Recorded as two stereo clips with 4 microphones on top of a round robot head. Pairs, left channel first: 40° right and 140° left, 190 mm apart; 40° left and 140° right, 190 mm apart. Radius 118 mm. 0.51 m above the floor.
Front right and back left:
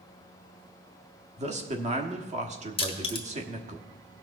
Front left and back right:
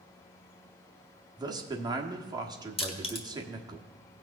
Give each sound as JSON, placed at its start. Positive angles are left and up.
{"t": 1.4, "sound": "a man speaking", "azimuth_deg": 165, "distance_m": 1.3}
{"t": 2.8, "sound": "crushing", "azimuth_deg": 0, "distance_m": 1.5}